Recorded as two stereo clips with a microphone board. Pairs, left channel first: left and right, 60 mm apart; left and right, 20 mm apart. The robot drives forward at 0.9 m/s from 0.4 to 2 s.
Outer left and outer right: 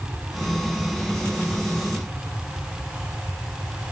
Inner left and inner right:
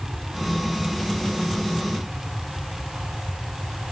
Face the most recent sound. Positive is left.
turn(degrees=-25)  # may be behind; listen again after turning